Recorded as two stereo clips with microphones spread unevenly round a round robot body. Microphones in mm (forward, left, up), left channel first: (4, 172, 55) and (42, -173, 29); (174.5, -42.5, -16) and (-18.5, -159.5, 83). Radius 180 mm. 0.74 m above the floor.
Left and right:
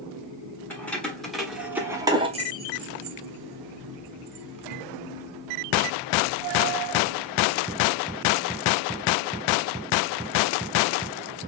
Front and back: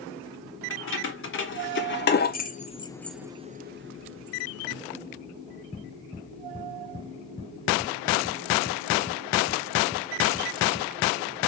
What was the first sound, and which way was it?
Keys jangling, 10° left.